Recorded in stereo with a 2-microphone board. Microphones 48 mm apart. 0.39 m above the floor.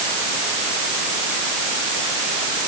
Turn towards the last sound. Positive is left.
No sound to turn to.